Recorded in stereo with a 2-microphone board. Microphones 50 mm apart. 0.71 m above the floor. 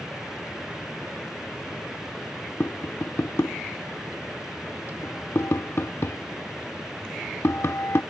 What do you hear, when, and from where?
2.6 s tapping: 65° left (ahead or behind)